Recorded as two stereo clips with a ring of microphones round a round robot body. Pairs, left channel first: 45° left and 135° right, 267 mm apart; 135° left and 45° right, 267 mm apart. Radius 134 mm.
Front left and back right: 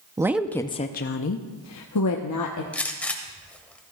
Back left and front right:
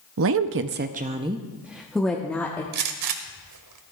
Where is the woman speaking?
60° right, 0.6 m; by 2.6 s 55° left, 1.2 m.